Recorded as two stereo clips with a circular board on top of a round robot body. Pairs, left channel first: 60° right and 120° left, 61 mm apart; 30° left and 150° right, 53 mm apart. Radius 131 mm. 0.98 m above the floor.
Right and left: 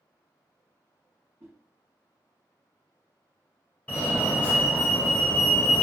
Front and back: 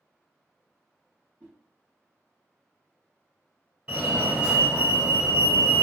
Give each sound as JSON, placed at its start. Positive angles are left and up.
{"t": 1.4, "sound": "a whoosh", "azimuth_deg": 160, "distance_m": 0.5}
{"t": 3.9, "sound": "a fire alarm", "azimuth_deg": -100, "distance_m": 1.3}